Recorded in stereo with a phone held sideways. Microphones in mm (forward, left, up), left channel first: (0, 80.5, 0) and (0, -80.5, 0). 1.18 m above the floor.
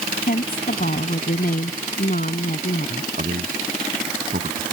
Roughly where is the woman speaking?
Left.